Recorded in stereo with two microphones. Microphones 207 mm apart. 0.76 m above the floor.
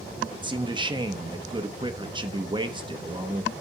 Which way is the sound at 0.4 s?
25° right (ahead or behind).